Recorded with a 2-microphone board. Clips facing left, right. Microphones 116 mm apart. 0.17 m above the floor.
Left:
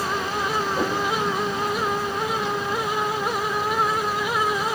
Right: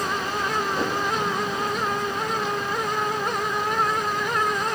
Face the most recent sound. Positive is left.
turn(degrees=5)  # may be behind; listen again after turning